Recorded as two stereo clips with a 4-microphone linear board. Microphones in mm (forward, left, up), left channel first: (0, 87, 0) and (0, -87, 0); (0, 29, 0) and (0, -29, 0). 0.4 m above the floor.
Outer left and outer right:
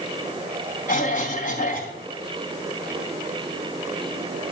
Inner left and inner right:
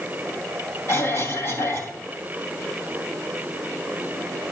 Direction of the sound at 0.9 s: 50° left (ahead or behind).